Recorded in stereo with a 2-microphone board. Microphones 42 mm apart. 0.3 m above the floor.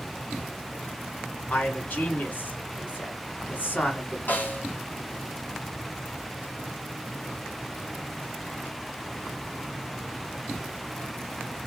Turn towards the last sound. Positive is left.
turn(degrees=45)  # may be behind; listen again after turning